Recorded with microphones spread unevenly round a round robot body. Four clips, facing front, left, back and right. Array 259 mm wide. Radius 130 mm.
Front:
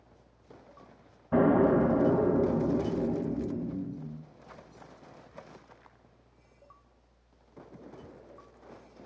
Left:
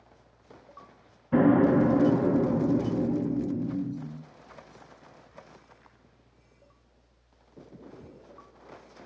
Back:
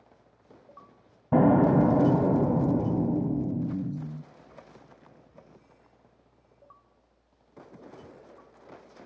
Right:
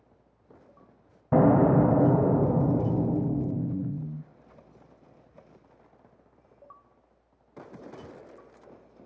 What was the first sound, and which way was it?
An explosion, 135° right.